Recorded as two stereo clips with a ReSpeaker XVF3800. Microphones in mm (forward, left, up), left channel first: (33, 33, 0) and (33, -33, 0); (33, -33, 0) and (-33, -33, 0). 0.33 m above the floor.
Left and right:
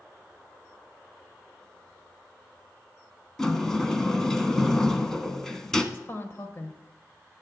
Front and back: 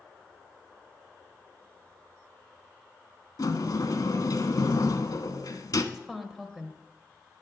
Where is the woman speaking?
100° left, 1.4 m.